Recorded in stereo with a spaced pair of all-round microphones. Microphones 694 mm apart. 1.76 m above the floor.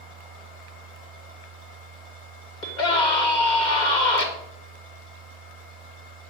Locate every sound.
0.0 s a machine running: 55° left (ahead or behind), 2.5 m
2.6 s a scream: 75° left (ahead or behind), 2.5 m